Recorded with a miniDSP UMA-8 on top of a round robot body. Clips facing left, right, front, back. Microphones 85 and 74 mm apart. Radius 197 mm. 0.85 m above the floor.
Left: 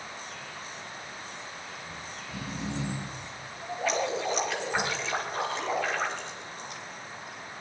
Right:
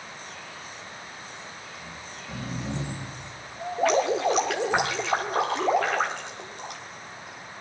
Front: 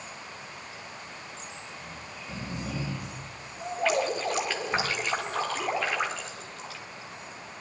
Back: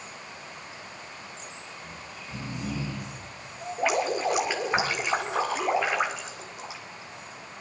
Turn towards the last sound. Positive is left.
turn(degrees=-105)